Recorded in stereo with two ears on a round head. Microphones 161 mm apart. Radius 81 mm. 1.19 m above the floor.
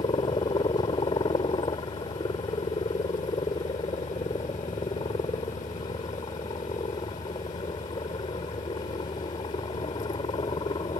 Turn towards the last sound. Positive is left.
turn(degrees=25)  # may be behind; listen again after turning